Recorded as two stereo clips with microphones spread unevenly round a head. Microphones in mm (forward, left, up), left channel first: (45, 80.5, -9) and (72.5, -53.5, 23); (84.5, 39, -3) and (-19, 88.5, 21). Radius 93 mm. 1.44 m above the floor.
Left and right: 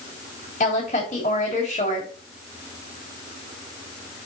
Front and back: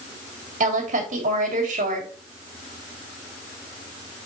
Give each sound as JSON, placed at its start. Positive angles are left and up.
{"t": 0.6, "sound": "a woman speaking", "azimuth_deg": 155, "distance_m": 2.5}